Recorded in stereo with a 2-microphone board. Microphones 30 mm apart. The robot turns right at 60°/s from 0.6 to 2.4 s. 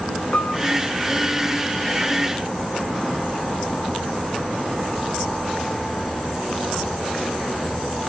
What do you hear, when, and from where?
0.3 s a piano: 55° left (ahead or behind), 3 m